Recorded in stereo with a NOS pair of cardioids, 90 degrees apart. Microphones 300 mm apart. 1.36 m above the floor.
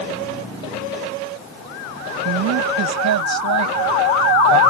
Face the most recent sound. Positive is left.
turn(degrees=-70)